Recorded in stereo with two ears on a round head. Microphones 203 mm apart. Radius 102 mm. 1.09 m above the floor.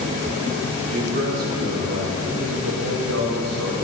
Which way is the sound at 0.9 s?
35° right (ahead or behind).